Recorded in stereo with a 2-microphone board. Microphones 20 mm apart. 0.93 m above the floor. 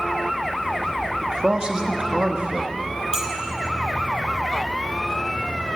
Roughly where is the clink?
Right.